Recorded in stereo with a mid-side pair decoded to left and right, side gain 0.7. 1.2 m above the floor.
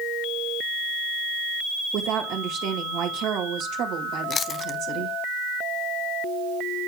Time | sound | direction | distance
1.9 | a woman speaking | 65° right | 2.0 m
4.3 | chewing | 35° left | 0.6 m